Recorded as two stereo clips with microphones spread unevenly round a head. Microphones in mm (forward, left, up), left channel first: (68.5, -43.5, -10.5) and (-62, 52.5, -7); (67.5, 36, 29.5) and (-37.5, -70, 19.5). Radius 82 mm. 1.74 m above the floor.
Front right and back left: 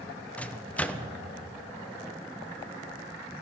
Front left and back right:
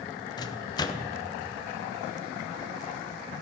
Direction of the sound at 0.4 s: 40° left.